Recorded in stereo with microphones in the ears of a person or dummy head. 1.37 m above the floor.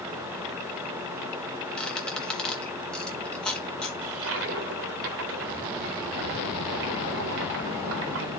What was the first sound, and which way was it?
A squeak, 10° left (ahead or behind).